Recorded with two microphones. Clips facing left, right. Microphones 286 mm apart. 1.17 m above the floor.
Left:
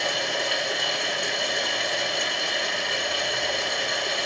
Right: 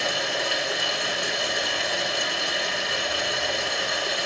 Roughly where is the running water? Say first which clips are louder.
Even; centre.